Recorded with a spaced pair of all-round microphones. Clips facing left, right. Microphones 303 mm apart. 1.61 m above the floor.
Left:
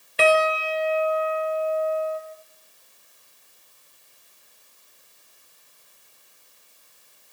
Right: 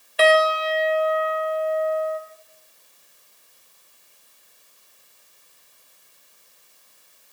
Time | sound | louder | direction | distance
0.2 | a piano | right 2 dB | 30° left (ahead or behind) | 1.9 m